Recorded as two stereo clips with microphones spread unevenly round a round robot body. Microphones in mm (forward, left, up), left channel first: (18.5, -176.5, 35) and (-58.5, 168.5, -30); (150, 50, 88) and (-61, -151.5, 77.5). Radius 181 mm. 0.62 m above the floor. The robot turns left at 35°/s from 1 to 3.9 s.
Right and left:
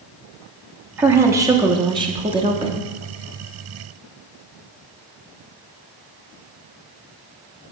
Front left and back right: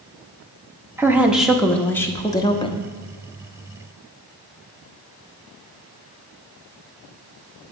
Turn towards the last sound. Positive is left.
turn(degrees=55)